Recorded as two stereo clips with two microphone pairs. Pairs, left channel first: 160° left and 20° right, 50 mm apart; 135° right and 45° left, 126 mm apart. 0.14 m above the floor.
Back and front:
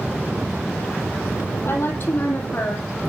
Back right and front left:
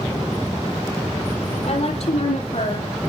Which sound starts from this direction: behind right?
A woman speaking, at 1.6 s.